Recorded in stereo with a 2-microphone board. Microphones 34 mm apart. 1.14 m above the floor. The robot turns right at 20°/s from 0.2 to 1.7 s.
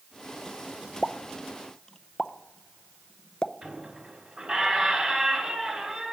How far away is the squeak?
About 3 m.